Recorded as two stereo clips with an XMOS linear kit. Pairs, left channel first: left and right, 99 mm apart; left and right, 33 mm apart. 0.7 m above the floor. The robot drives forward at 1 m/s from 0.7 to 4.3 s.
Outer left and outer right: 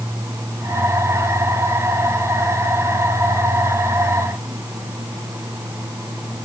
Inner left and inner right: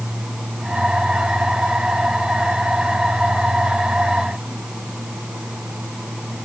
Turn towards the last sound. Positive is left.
No sound to turn to.